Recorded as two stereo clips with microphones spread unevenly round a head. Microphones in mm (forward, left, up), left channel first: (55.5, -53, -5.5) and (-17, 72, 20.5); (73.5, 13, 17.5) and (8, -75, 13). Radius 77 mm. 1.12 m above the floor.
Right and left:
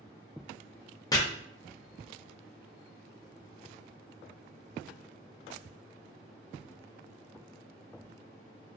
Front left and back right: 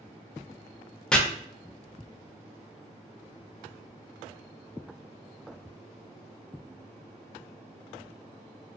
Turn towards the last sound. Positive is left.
turn(degrees=-30)